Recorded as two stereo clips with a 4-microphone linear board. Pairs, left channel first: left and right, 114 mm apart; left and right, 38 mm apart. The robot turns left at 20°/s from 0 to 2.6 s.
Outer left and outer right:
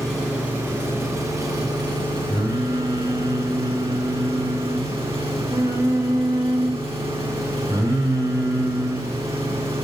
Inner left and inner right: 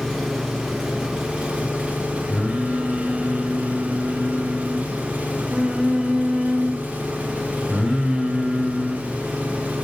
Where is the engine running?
Straight ahead, 6 m; by 9.8 s 55° right, 6 m.